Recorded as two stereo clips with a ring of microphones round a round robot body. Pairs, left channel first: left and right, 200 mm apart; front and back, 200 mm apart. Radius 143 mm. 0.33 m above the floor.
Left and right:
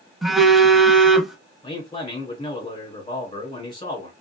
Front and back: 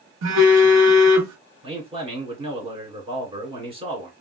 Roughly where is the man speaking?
Behind left.